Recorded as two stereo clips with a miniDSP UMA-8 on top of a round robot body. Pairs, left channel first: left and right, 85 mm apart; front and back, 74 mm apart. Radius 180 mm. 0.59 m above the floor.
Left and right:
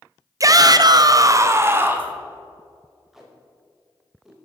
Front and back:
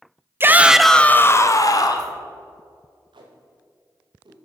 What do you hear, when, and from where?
0.4 s a shout: 130° right, 0.8 m; by 2.1 s 25° right, 1.3 m
3.1 s tape being pulled: 175° right, 0.8 m